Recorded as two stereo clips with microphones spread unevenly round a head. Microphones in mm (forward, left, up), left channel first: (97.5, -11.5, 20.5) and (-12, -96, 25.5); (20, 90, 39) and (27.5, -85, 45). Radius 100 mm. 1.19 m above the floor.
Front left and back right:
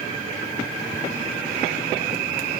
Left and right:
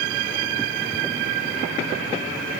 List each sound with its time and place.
Only background noise.